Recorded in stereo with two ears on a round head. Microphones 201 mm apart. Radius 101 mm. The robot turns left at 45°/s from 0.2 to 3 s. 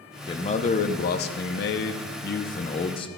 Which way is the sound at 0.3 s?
150° left.